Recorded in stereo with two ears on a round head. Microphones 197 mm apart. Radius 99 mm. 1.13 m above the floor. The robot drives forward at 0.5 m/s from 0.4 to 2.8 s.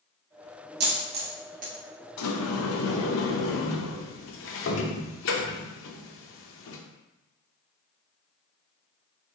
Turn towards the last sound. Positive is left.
turn(degrees=65)  # may be behind; listen again after turning